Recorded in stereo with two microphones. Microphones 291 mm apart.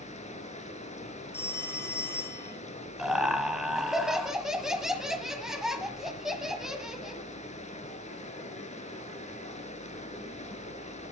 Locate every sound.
0.0 s running water: 25° left (ahead or behind), 1.2 m
1.3 s a phone ringing: 10° left (ahead or behind), 3 m
3.0 s laughter: centre (ahead or behind), 1.3 m